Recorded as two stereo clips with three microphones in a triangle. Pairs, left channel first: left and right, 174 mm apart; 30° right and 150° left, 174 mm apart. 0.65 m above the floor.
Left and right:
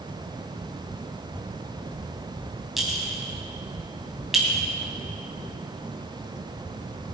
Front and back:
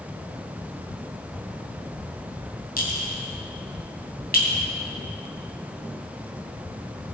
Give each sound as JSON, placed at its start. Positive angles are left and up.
{"t": 2.8, "sound": "a clink", "azimuth_deg": 0, "distance_m": 2.5}